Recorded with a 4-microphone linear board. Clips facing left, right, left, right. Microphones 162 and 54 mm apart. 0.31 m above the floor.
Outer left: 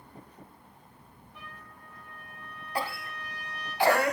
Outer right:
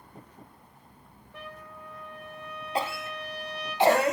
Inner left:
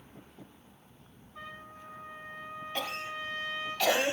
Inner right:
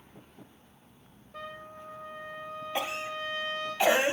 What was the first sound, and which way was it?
A trumpet, 70° right (ahead or behind).